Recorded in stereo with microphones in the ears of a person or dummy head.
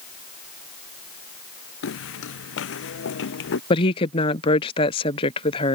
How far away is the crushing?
I don't hear crushing.